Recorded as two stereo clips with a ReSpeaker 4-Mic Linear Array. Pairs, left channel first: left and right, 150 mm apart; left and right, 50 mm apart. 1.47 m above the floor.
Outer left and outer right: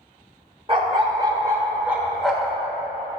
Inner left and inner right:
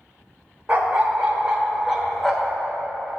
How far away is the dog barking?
About 1.4 m.